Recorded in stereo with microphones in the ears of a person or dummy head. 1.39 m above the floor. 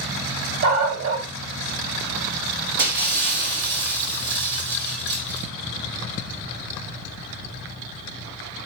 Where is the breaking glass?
50° right (ahead or behind), 3.5 m.